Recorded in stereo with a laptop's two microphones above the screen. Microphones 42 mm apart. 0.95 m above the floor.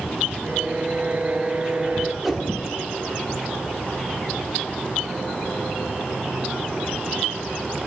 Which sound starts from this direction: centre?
A whoosh, at 2.2 s.